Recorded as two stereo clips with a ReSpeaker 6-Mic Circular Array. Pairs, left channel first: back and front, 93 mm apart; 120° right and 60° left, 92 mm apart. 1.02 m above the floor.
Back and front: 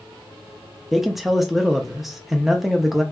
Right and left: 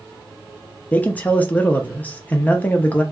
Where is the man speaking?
85° right, 0.5 m.